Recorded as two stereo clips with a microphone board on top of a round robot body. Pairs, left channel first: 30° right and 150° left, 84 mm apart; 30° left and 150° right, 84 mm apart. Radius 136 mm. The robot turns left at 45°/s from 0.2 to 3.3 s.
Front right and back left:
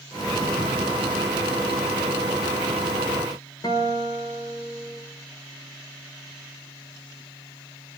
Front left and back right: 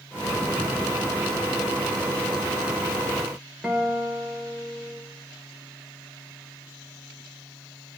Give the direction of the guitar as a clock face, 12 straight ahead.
2 o'clock.